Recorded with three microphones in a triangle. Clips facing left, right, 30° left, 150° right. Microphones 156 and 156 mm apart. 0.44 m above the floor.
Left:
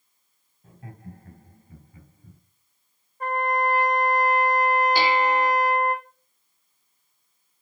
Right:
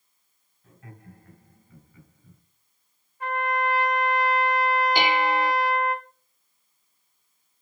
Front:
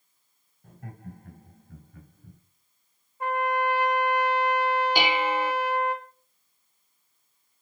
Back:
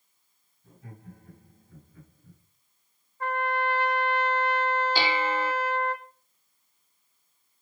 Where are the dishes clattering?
35° right, 0.6 m.